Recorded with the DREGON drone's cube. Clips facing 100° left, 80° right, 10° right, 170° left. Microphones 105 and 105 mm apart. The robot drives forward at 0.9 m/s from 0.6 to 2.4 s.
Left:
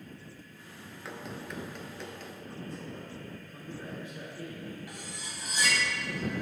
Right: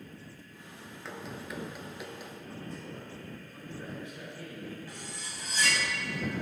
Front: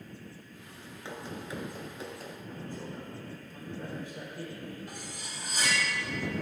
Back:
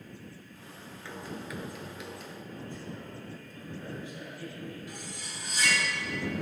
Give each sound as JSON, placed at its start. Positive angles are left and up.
{"t": 1.1, "sound": "running footsteps", "azimuth_deg": 15, "distance_m": 1.0}
{"t": 2.4, "sound": "a man speaking", "azimuth_deg": 15, "distance_m": 3.0}
{"t": 4.9, "sound": "cutlery clinking", "azimuth_deg": 25, "distance_m": 3.0}